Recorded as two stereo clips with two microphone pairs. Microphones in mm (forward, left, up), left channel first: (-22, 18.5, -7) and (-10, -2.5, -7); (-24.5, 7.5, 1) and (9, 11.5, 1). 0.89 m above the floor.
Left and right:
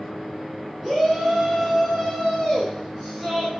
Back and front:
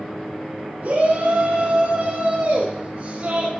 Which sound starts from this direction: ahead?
A shout, at 0.8 s.